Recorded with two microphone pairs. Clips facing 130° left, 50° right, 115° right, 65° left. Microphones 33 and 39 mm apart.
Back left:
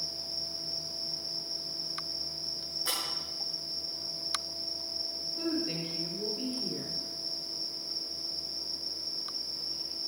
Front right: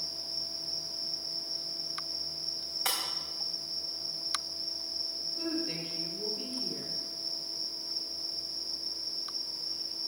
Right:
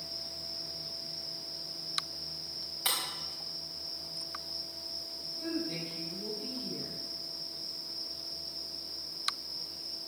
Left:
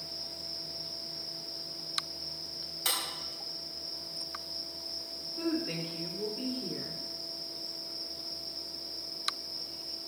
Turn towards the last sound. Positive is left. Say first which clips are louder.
# back left 2 dB, left 3 dB
turn(degrees=45)